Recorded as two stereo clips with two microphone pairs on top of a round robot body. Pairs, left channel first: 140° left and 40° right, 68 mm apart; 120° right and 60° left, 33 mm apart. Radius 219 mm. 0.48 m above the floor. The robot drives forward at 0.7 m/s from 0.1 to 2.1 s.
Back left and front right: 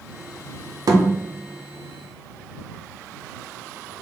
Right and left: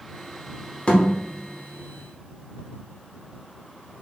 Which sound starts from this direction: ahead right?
A thud, at 0.9 s.